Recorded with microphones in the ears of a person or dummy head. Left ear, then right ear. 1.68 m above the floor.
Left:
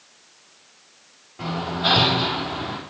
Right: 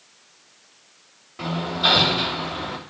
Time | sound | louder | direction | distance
1.4 | hammering | right 2 dB | 70° right (ahead or behind) | 2.5 m